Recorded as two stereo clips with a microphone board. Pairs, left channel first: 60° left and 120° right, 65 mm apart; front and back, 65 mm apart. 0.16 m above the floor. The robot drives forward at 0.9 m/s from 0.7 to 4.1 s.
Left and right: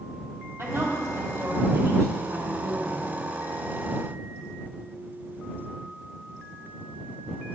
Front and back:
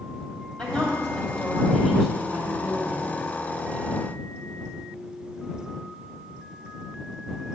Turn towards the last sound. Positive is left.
turn(degrees=-115)